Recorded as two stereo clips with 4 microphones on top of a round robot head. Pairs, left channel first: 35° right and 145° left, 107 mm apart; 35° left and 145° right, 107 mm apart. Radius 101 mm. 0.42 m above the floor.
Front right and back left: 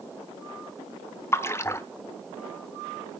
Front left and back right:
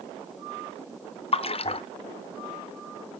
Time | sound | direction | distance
1.3 | a splash | 30° left | 1.0 m